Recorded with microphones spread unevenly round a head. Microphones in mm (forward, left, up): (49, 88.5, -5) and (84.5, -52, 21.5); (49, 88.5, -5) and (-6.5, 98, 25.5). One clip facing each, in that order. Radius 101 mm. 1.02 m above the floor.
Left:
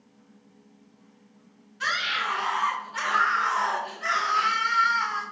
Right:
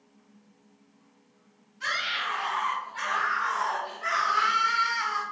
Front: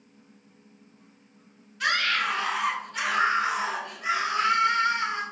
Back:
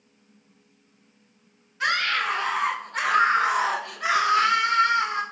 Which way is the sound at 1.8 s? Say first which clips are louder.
Left 3 dB, back 1 dB; 110° left.